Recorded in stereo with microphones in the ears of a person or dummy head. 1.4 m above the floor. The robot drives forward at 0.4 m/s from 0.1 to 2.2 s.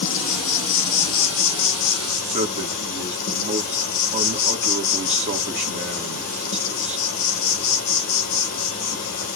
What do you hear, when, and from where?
0.0 s an insect: 65° left (ahead or behind), 1.2 m; by 9.4 s 50° left (ahead or behind), 1.4 m
2.2 s a man speaking: 45° right (ahead or behind), 1.2 m